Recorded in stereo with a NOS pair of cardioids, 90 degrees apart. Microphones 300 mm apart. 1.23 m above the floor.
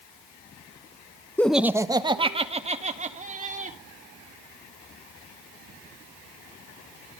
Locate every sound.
1.4 s laughter: 5° left, 1.0 m; by 3.8 s 25° right, 4.5 m